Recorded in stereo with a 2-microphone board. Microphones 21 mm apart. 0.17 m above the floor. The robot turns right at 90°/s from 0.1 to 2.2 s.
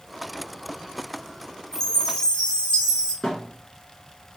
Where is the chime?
45° left, 1.2 m; by 3.1 s 85° left, 1.2 m.